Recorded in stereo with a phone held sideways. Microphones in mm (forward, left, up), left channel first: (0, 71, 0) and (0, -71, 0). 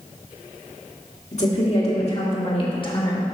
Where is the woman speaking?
50° left (ahead or behind), 2.5 m; by 3.4 s 30° left (ahead or behind), 1.6 m.